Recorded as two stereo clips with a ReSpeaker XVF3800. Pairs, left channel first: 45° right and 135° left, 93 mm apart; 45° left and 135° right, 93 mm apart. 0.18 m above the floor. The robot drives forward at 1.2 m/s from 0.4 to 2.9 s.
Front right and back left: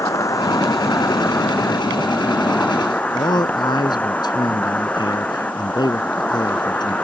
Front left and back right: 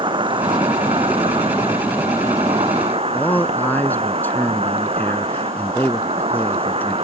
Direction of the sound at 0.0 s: 100° right.